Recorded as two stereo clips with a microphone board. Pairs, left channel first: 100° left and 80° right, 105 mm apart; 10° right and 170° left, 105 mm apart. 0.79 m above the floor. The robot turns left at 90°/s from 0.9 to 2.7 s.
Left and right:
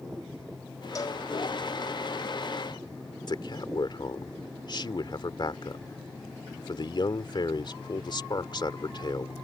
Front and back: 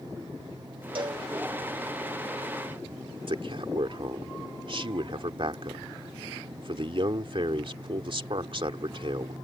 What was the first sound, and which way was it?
A cowbell, 145° left.